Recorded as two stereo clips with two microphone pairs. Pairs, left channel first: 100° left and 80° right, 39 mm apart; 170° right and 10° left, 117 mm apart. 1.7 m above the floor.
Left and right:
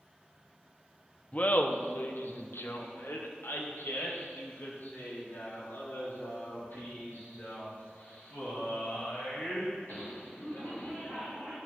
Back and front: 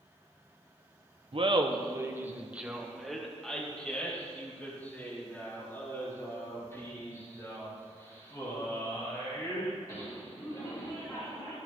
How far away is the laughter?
About 1.4 m.